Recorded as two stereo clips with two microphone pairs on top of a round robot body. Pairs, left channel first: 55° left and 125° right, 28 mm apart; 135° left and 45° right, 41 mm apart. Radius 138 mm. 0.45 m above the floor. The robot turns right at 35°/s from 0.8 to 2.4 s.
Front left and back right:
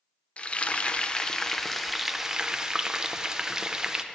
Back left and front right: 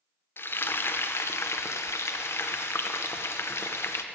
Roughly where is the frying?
Left.